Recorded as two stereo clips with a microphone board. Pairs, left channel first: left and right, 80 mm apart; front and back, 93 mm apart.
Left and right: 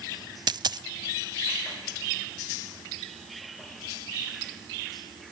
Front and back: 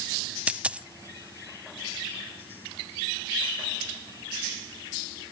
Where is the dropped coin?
105° right, 0.5 m.